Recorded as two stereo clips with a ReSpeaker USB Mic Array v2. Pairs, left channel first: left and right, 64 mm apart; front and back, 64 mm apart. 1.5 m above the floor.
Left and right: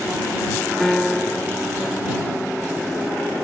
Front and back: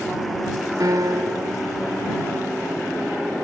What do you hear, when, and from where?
0.8 s a piano: 175° left